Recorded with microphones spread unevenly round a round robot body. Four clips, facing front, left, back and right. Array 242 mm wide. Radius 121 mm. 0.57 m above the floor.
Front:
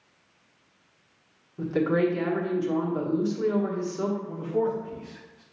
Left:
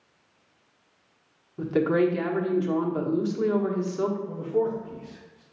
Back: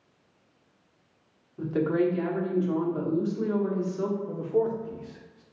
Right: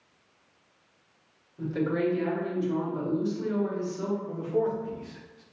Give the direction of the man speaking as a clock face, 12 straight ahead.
6 o'clock.